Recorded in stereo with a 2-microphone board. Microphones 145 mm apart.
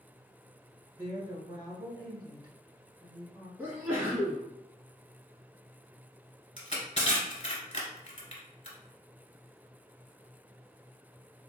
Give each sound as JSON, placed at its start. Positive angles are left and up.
{"t": 0.9, "sound": "a woman speaking", "side_deg": -30, "distance_m": 1.4}
{"t": 3.6, "sound": "a sneeze", "side_deg": -15, "distance_m": 1.1}
{"t": 6.6, "sound": "crushing", "side_deg": 45, "distance_m": 1.3}